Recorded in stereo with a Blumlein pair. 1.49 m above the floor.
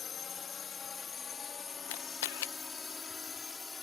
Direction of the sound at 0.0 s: 25° left.